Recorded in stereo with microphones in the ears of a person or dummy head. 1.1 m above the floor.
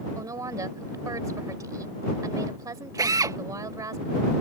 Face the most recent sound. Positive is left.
turn(degrees=-20)  # may be behind; listen again after turning